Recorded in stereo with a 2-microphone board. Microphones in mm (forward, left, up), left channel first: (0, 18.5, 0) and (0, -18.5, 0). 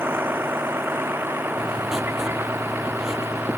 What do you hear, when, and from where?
0.0 s a vehicle: 90° right; by 3.6 s 85° right
1.6 s writing: 15° right (ahead or behind)